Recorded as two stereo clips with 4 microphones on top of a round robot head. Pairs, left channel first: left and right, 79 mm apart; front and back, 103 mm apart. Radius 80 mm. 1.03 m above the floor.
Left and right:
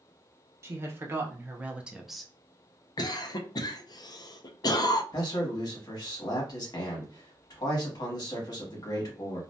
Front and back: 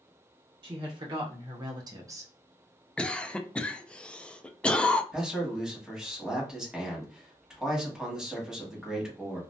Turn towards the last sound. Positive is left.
turn(degrees=95)